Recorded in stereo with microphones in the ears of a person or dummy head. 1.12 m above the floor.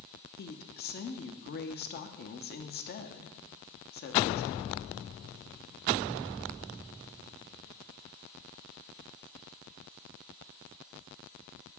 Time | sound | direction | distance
0.4 | a woman speaking | 45° left (ahead or behind) | 0.7 m